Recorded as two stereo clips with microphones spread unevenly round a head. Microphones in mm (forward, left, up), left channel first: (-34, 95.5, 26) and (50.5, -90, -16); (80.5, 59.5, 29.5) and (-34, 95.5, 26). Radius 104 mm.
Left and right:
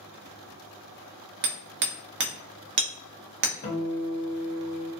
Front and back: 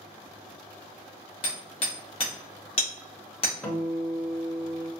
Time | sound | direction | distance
1.4 | hammering | 40° right | 1.1 m
3.6 | a guitar | 65° left | 1.3 m